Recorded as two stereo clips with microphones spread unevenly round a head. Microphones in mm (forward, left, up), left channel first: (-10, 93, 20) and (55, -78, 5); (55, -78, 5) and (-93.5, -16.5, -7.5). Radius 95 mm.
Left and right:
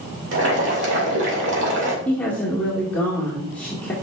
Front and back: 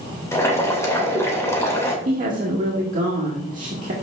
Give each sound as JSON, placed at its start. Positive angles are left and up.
{"t": 0.3, "sound": "boiling", "azimuth_deg": -95, "distance_m": 2.5}
{"t": 2.0, "sound": "a woman speaking", "azimuth_deg": -165, "distance_m": 2.0}